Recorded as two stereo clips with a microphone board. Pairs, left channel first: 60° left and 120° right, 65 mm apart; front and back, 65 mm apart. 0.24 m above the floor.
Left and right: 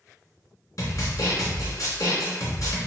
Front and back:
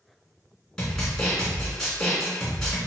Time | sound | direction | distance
0.8 | a snare drum | 75° left | 1.7 m